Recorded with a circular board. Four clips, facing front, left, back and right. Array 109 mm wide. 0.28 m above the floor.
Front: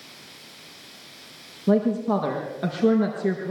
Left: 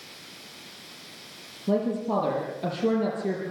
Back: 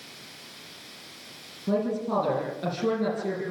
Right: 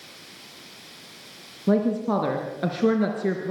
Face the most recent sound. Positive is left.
turn(degrees=-60)